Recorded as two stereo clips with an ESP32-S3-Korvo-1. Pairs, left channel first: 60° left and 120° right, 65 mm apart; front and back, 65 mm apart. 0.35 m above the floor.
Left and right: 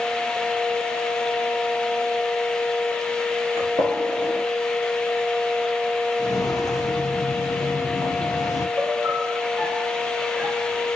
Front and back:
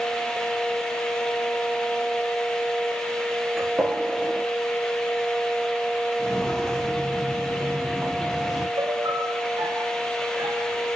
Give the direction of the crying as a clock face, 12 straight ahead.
No crying in this recording.